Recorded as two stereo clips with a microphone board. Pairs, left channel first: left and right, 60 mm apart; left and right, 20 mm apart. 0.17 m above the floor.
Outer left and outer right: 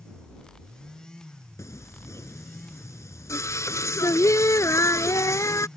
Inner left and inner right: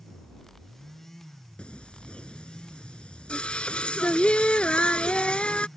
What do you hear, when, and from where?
1.6 s singing: 65° left (ahead or behind)